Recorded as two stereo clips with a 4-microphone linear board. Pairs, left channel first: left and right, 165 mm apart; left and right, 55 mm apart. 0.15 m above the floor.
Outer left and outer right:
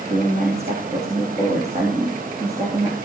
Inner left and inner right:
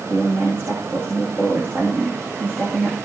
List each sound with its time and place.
0.1 s a woman speaking: 40° right (ahead or behind), 6 m